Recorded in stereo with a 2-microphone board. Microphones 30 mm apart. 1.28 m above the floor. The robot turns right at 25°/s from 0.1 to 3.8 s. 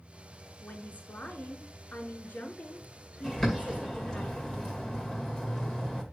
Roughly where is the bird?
Centre.